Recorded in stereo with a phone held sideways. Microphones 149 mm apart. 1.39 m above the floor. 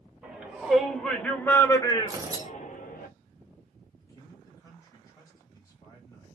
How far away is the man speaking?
About 2.0 m.